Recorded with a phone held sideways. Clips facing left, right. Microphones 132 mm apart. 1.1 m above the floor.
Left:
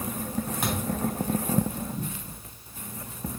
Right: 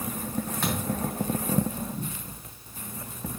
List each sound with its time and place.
0.6 s a thud: 15° left (ahead or behind), 3 m